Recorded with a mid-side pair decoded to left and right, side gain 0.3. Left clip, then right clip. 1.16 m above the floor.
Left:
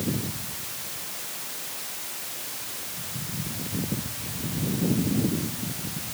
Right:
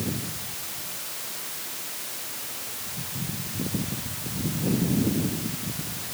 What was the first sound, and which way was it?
Only background noise.